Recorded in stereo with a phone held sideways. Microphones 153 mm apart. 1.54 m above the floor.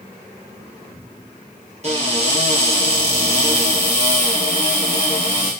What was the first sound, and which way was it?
A cupboard door, 45° right (ahead or behind).